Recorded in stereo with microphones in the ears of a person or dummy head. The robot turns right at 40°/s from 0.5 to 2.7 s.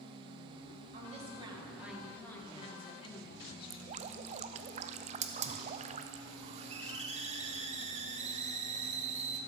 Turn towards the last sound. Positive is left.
turn(degrees=-30)  # may be behind; listen again after turning